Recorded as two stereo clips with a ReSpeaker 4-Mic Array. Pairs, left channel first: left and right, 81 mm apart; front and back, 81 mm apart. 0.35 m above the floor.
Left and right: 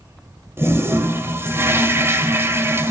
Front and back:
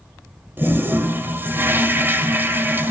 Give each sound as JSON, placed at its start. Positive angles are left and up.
{"t": 0.6, "sound": "a toilet flushing", "azimuth_deg": -130, "distance_m": 1.9}